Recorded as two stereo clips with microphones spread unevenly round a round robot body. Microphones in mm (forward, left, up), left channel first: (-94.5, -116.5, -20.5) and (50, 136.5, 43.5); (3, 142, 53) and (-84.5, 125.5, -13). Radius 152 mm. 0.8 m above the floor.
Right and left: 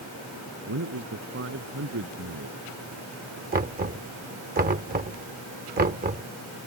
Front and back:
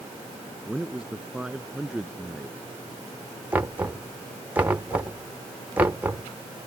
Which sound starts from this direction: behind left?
Knocking, at 3.5 s.